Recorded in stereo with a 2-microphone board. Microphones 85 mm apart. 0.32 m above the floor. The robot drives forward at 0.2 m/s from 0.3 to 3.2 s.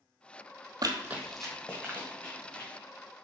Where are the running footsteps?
50° right (ahead or behind), 0.6 m; by 2.7 s 25° left (ahead or behind), 2.5 m.